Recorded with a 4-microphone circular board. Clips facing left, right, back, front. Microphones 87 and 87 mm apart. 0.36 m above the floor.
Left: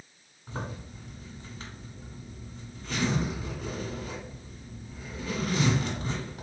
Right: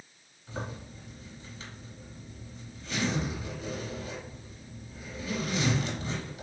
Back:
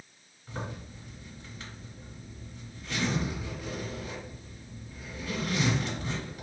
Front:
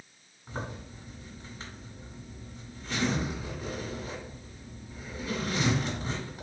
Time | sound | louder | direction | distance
0.5 | a zipper | left 1 dB, front 1 dB | 55° left | 1.4 m